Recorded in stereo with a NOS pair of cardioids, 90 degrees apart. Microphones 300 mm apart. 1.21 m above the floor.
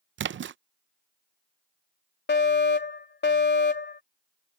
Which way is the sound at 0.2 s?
40° right.